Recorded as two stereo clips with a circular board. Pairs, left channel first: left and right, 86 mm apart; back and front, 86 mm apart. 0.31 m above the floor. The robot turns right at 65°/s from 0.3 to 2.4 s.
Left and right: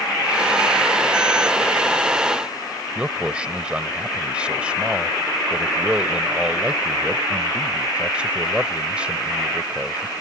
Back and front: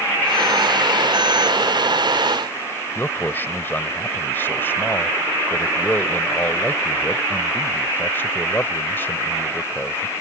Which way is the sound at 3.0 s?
150° right.